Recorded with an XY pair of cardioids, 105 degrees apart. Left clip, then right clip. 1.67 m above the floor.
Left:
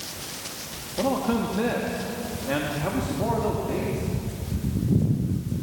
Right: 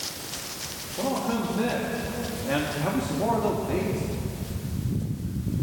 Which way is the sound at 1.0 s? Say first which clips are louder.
Left 3 dB; 30° left.